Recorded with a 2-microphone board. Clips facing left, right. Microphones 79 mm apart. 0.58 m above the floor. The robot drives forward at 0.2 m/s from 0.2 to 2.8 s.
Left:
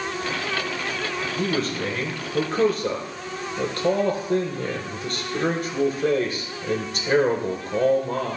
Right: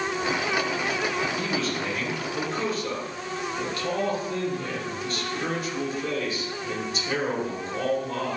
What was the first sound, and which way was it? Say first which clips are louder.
A man speaking: left 3 dB; 50° left (ahead or behind).